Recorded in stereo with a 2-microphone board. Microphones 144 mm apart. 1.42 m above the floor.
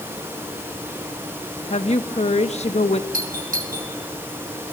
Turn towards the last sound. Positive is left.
turn(degrees=-75)  # may be behind; listen again after turning